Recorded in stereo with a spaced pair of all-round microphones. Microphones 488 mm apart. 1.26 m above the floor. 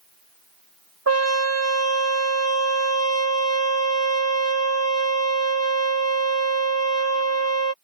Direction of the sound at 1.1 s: 30° right (ahead or behind).